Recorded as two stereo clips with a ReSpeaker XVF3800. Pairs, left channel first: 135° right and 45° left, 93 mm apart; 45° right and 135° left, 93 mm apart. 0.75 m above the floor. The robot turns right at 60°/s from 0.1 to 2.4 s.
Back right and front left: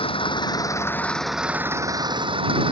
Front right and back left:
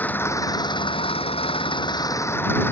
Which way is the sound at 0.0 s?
115° right.